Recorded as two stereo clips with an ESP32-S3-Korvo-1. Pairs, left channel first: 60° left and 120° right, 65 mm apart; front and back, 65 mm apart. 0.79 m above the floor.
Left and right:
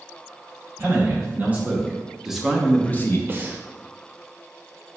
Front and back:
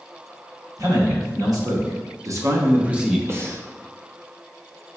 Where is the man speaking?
Straight behind, 1.9 m; by 3.2 s 90° left, 0.6 m.